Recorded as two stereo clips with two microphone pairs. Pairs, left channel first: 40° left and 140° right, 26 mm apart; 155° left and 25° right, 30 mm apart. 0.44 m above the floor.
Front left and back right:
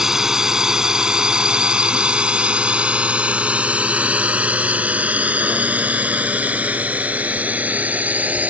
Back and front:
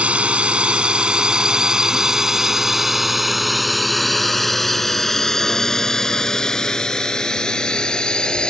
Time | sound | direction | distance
0.0 | a drone | 70° right | ?